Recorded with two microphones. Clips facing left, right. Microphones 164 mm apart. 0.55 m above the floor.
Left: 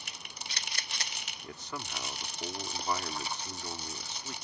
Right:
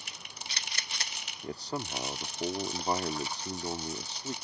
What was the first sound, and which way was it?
A man speaking, 35° right (ahead or behind).